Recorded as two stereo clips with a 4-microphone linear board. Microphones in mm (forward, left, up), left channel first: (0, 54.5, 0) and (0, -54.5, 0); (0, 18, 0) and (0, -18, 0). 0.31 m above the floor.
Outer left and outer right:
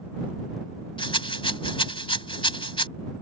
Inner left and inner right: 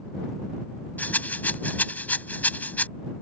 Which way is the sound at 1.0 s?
55° left (ahead or behind).